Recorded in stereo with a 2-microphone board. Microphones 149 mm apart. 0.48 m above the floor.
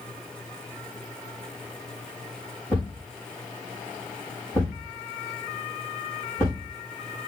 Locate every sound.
2.7 s a thud: 15° left (ahead or behind), 5.5 m